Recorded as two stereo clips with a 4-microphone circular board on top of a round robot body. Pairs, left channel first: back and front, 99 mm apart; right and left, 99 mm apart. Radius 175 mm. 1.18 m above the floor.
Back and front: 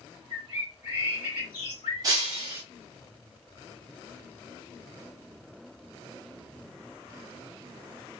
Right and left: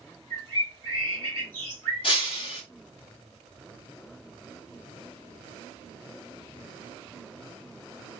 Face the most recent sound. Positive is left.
turn(degrees=-55)